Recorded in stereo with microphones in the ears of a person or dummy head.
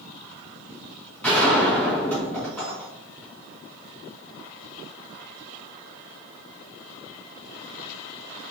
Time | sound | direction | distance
1.2 | a gunshot | centre (ahead or behind) | 2 m